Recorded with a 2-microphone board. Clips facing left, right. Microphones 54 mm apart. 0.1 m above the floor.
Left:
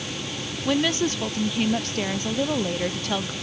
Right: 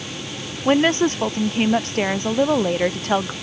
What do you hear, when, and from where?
0.7 s a woman speaking: 40° right (ahead or behind)